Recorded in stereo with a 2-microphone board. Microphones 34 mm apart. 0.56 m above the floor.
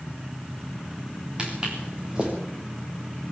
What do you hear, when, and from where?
1.4 s footsteps: 25° right (ahead or behind), 6 m